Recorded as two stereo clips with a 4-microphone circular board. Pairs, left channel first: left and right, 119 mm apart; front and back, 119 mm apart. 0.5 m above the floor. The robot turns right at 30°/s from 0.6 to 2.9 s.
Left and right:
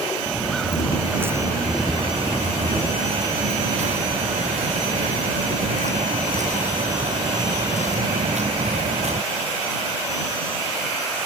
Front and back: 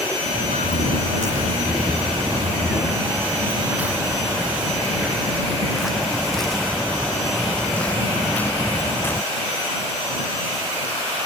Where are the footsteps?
175° left; by 9.2 s 70° right.